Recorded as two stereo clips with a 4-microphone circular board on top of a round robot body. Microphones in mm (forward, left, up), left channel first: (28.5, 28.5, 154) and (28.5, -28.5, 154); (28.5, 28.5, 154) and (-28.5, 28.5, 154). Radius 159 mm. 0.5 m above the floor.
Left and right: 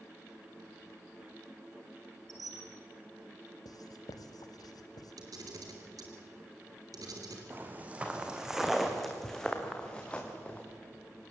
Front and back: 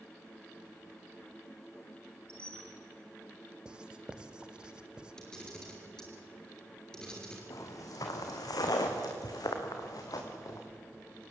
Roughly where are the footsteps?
Ahead right.